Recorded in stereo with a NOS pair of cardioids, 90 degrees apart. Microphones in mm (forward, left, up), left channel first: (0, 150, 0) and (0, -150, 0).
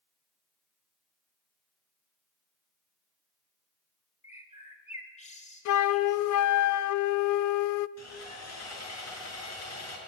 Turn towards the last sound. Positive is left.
turn(degrees=60)